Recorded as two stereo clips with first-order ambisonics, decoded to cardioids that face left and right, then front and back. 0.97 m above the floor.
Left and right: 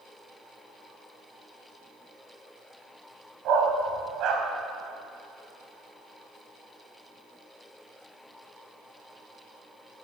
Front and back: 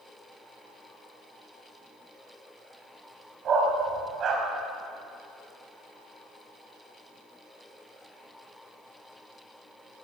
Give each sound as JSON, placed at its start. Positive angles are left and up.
{"t": 3.5, "sound": "a dog barking", "azimuth_deg": -125, "distance_m": 1.3}